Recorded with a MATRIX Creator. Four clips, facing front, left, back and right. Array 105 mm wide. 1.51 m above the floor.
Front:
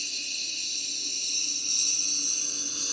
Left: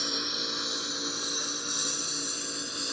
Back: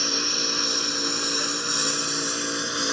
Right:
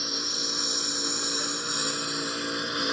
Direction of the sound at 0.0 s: Straight behind.